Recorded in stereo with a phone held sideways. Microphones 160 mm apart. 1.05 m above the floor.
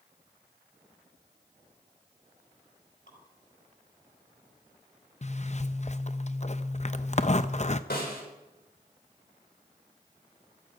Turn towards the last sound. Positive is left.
turn(degrees=80)